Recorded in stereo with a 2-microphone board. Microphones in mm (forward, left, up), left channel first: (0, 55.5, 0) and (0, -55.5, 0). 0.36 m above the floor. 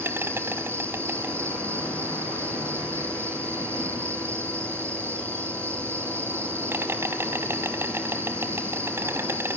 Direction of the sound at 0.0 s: 20° right (ahead or behind).